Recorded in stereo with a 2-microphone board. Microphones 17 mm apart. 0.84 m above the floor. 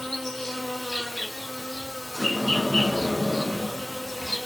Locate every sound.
0.0 s an insect: 25° left (ahead or behind), 1.2 m
2.1 s a sliding door: 5° right (ahead or behind), 0.8 m